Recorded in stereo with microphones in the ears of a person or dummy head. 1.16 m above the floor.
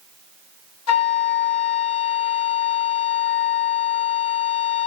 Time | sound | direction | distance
0.9 | a flute | 90° left | 2 m